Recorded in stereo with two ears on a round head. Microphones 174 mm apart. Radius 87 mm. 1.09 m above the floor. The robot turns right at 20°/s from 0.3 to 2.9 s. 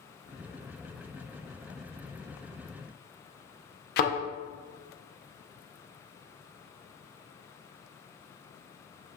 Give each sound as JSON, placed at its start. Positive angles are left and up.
{"t": 4.0, "sound": "a thud", "side_deg": 55, "distance_m": 0.6}